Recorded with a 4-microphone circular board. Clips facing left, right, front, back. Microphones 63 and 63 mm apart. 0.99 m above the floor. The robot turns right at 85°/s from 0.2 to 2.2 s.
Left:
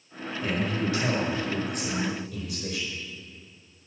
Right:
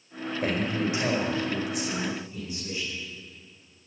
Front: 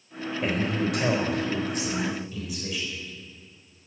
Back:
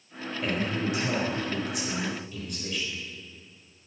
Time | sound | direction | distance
0.4 | a man speaking | 65° right | 4 m